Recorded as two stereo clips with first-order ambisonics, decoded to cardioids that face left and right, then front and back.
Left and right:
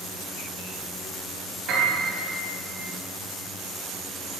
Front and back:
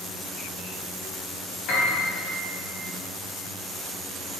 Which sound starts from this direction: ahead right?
A piano, at 1.7 s.